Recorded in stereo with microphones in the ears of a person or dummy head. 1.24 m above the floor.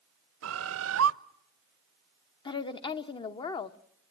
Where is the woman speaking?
35° left (ahead or behind), 1.0 m.